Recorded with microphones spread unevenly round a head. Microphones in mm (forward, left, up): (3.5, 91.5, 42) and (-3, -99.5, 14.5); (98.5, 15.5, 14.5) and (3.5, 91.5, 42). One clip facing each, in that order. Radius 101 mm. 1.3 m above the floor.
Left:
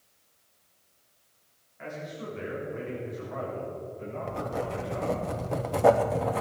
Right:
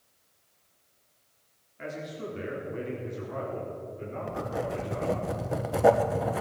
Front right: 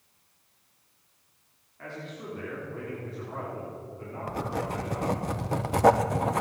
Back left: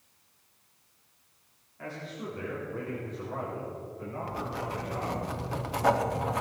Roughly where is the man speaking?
Behind right.